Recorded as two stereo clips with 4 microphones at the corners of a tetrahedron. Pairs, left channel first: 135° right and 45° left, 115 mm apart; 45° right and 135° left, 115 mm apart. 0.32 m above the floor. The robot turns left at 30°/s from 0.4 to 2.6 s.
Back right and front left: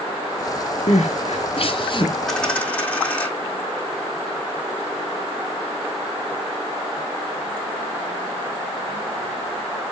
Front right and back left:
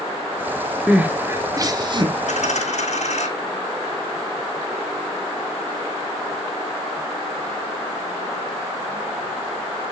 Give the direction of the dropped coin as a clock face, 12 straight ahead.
2 o'clock.